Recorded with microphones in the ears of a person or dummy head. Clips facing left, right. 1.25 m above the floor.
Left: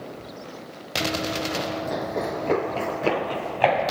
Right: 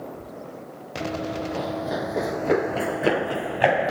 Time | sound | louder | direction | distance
1.0 | running footsteps | left 1 dB | 10° left (ahead or behind) | ?